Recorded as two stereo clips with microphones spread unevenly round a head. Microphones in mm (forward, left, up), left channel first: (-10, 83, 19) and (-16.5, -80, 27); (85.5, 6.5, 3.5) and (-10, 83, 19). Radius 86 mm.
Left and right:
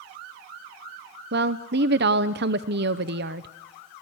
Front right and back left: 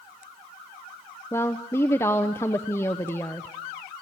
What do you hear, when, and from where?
1.3 s a woman speaking: 115° right, 0.8 m